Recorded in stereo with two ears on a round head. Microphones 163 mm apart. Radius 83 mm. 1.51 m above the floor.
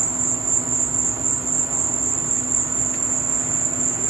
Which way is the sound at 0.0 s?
15° right (ahead or behind).